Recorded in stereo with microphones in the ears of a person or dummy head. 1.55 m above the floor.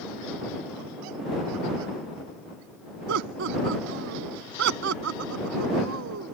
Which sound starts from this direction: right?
Laughter, at 3.1 s.